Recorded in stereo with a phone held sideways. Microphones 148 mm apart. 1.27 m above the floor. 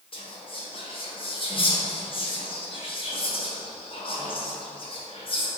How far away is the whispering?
About 0.7 m.